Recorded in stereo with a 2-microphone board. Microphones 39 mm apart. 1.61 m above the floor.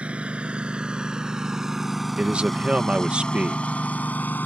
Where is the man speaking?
30° right (ahead or behind).